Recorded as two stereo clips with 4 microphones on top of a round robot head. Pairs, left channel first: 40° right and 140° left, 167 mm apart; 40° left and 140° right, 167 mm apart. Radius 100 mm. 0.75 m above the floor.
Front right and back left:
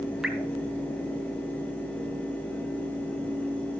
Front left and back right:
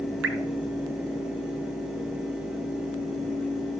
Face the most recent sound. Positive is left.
turn(degrees=-130)